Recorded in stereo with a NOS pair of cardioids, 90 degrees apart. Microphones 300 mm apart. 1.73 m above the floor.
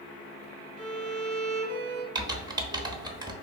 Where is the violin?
35° right, 0.7 m.